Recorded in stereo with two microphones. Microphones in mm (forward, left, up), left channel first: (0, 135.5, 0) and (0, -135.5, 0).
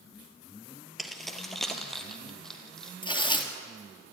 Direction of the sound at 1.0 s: Centre (ahead or behind).